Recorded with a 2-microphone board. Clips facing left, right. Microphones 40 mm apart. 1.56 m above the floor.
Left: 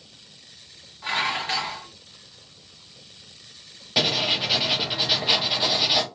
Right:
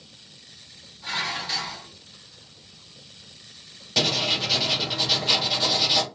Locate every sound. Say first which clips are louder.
1.0 s dishes clattering: left 4 dB; 40° left (ahead or behind), 1.2 m
4.0 s writing: left 1 dB; 10° left (ahead or behind), 0.8 m